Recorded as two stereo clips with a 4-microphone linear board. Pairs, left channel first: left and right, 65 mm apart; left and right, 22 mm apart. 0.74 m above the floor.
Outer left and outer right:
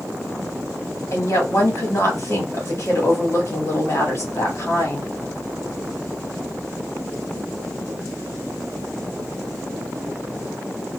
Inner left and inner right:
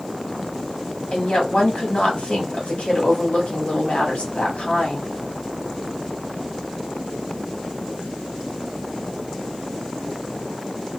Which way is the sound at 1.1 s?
50° left (ahead or behind).